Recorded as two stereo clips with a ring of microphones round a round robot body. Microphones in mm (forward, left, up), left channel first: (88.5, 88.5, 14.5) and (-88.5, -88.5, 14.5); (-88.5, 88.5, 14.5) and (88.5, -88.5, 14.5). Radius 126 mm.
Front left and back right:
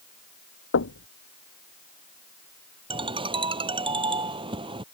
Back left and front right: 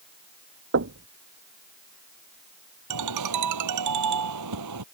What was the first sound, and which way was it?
Knocking, straight ahead.